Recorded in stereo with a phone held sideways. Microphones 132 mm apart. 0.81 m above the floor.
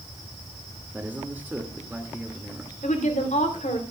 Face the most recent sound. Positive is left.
turn(degrees=65)  # may be behind; listen again after turning